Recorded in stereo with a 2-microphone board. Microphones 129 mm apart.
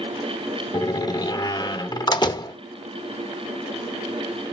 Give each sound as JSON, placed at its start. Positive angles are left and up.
{"t": 0.7, "sound": "a door slam", "side_deg": 35, "distance_m": 0.7}